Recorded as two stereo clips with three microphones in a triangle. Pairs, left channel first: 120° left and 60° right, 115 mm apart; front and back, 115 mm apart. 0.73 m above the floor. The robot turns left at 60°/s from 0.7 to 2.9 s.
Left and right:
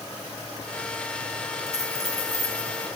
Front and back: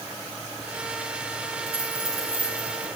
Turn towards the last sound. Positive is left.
turn(degrees=75)